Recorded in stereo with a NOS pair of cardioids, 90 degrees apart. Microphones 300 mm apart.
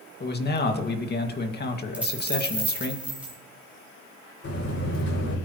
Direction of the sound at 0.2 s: 35° left.